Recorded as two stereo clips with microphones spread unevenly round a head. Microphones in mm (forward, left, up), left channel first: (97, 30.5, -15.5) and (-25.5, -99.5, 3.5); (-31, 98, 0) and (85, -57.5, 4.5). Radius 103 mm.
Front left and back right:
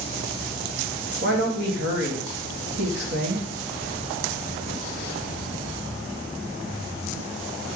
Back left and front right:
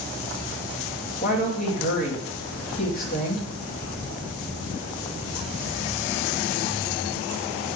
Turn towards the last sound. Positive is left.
turn(degrees=180)